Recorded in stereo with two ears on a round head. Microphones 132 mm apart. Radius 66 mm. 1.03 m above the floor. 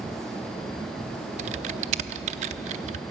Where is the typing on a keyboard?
45° right (ahead or behind), 0.7 m.